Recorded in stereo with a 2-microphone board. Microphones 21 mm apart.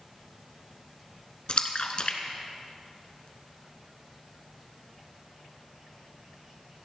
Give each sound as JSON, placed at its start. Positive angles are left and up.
{"t": 1.5, "sound": "a splash", "side_deg": 50, "distance_m": 1.0}